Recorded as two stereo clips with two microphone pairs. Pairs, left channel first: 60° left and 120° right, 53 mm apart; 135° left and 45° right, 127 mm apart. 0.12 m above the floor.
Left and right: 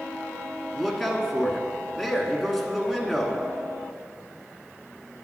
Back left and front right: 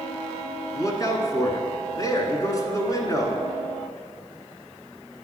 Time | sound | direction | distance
0.7 | a man speaking | 150° left | 1.3 m